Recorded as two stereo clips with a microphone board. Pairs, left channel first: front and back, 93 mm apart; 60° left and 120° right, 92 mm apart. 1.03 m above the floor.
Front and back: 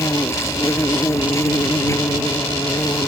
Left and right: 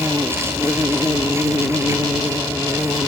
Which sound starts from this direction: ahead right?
An insect, at 0.0 s.